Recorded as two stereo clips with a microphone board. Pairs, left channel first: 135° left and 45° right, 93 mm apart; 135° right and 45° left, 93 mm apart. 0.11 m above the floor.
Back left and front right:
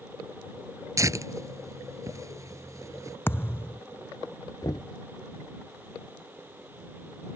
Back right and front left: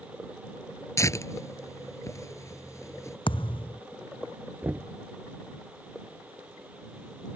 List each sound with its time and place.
1.0 s tearing paper: 90° right
3.3 s a thud: 160° right
4.6 s knocking: 110° left